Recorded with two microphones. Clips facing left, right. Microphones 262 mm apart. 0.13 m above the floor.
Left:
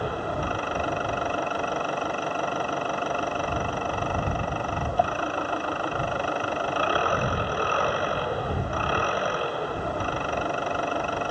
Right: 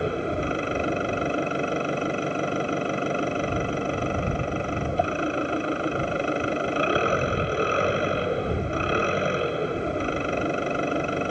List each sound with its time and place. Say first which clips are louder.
0.0 s an engine running: right 4 dB; 25° right (ahead or behind)